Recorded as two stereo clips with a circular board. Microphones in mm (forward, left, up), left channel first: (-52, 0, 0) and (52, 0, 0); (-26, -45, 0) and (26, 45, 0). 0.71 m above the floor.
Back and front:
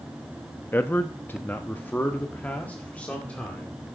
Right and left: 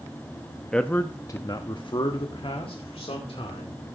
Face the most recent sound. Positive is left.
turn(degrees=-105)